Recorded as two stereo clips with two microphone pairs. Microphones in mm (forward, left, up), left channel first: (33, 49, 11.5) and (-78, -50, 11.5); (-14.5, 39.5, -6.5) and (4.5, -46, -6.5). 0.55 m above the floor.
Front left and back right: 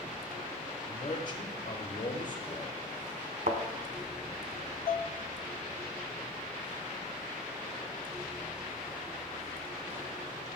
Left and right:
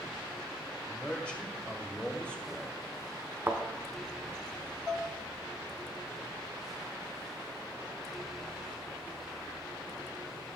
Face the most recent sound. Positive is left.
turn(degrees=25)